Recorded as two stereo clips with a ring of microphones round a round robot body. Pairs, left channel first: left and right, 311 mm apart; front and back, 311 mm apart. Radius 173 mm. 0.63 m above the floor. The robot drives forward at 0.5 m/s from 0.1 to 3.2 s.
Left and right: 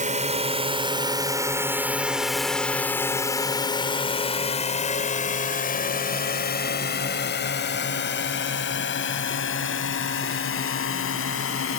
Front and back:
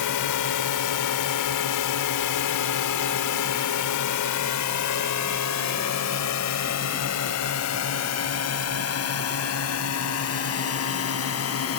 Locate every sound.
0.0 s a drone: 25° right; by 11.8 s 45° left